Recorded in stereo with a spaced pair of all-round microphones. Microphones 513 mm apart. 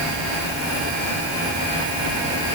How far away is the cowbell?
No cowbell in this recording.